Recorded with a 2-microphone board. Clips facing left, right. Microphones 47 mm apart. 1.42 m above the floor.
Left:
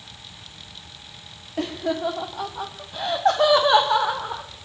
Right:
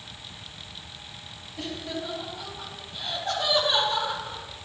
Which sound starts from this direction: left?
Laughter, at 1.6 s.